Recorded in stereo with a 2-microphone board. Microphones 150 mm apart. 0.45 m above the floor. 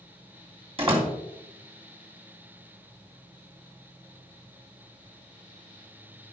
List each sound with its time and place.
0.8 s a door slam: 40° right (ahead or behind), 2.5 m